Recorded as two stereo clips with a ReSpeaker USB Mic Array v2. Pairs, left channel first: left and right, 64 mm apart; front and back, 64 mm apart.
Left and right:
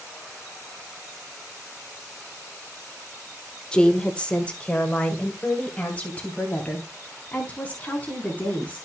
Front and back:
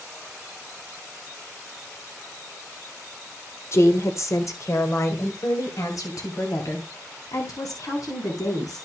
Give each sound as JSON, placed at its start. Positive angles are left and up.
{"t": 3.7, "sound": "a woman speaking", "azimuth_deg": 20, "distance_m": 1.1}